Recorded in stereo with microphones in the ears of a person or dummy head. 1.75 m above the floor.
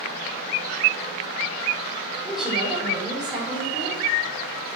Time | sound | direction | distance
2.2 | a woman speaking | centre (ahead or behind) | 6 m